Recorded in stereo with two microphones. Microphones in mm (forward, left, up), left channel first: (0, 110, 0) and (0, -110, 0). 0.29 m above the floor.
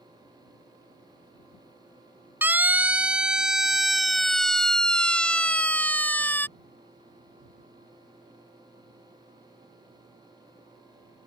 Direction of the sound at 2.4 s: 10° right (ahead or behind).